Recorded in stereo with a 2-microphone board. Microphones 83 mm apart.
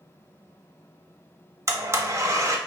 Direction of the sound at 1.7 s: 35° right (ahead or behind).